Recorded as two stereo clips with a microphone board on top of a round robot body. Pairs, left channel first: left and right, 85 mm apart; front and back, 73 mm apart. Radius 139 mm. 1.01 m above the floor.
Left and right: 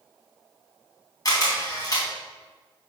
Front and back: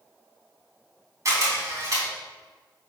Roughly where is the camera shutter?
Behind left.